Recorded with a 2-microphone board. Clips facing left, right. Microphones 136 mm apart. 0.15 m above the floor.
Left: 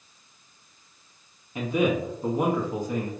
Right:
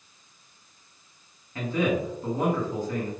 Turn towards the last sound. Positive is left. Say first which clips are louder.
# left 2 dB
turn(degrees=15)  # may be behind; listen again after turning